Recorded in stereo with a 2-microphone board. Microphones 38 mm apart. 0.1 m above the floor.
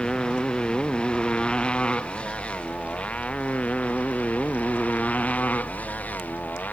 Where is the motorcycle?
20° left (ahead or behind); by 6.7 s 40° left (ahead or behind).